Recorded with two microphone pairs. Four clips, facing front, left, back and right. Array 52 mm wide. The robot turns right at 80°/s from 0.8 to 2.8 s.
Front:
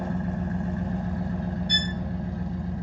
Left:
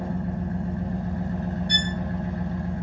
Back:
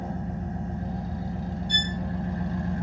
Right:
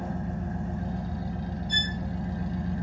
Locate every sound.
0.0 s an engine running: straight ahead, 0.8 m; by 2.8 s 160° left, 0.8 m
1.7 s a violin: 40° left, 1.3 m; by 1.9 s 60° left, 1.3 m